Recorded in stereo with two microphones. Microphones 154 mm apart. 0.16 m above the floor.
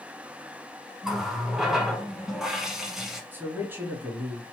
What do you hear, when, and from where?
1.0 s a running tap: 5° right (ahead or behind), 1.0 m
3.3 s a man speaking: 15° right (ahead or behind), 1.4 m